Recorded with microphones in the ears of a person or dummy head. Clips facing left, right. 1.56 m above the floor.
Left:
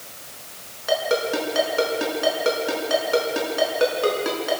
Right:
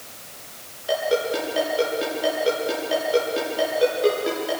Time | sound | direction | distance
0.9 | a ringtone | 75° left (ahead or behind) | 6.5 m